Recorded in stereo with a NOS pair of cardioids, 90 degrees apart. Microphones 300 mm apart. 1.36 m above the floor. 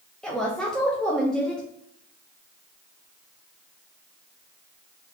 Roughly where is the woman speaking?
Ahead.